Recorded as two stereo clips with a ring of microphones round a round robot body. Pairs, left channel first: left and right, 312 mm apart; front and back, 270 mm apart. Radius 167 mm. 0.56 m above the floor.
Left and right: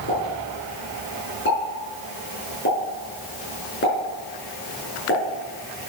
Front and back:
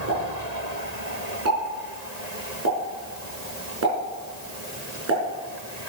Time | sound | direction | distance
0.1 | a pop | 145° left | 5.5 m